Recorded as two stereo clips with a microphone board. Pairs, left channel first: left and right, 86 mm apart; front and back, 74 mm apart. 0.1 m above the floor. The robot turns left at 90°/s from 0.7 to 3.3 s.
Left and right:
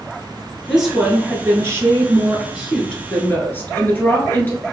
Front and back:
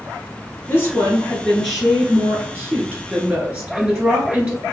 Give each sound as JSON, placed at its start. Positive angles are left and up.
{"t": 0.7, "sound": "a woman speaking", "azimuth_deg": 5, "distance_m": 1.3}